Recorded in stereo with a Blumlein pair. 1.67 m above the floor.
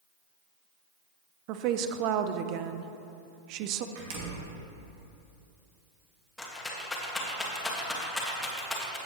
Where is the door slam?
45° right, 1.9 m.